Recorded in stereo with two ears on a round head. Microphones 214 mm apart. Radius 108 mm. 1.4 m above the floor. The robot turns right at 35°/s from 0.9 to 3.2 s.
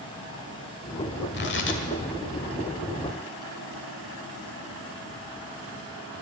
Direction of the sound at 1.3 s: 45° left (ahead or behind).